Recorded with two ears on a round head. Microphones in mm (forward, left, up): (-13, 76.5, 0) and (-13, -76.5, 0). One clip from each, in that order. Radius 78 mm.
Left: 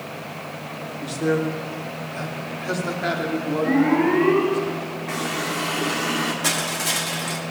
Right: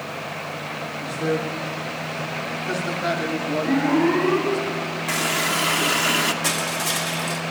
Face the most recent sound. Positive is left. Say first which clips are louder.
# even
turn(degrees=-5)  # may be behind; listen again after turning